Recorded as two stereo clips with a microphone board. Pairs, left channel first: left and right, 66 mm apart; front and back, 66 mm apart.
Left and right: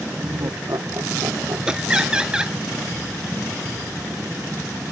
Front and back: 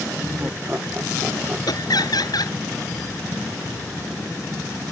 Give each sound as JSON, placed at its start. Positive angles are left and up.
{"t": 0.2, "sound": "laughter", "azimuth_deg": -115}
{"t": 1.7, "sound": "laughter", "azimuth_deg": -10}